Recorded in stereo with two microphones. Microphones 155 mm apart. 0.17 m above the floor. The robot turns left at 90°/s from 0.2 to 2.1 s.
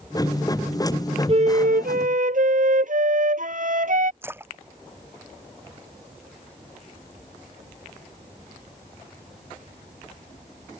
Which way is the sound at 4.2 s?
15° right (ahead or behind).